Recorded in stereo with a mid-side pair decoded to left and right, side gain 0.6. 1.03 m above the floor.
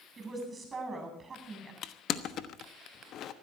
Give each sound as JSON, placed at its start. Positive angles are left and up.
{"t": 0.2, "sound": "a woman speaking", "azimuth_deg": -25, "distance_m": 8.5}
{"t": 1.8, "sound": "crushing", "azimuth_deg": 55, "distance_m": 1.1}